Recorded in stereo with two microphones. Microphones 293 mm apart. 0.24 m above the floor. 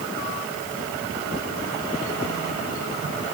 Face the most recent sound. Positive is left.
No sound to turn to.